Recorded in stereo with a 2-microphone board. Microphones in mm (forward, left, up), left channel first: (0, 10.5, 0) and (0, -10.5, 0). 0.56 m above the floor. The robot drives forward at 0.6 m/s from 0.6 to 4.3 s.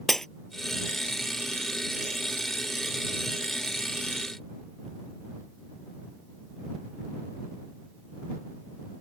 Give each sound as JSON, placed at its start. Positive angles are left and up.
{"t": 0.1, "sound": "breaking glass", "side_deg": 25}